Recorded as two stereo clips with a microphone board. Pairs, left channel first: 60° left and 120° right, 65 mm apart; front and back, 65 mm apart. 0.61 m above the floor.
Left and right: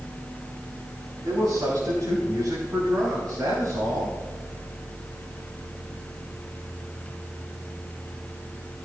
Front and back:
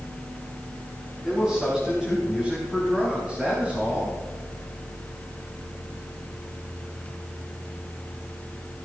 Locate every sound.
1.2 s a man speaking: 95° right, 4.5 m; by 4.2 s 115° right, 3.5 m